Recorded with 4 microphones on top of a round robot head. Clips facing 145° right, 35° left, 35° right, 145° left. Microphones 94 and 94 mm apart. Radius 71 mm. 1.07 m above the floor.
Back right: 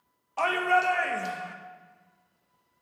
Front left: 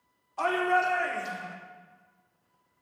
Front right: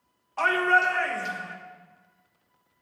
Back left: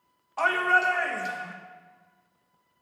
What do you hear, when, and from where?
0.4 s a shout: 135° right, 1.7 m